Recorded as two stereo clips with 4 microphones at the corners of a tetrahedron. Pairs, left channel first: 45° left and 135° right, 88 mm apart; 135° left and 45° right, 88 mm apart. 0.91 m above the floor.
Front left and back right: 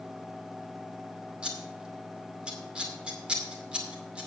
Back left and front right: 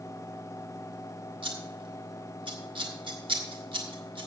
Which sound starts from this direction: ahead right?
Scissors, at 1.4 s.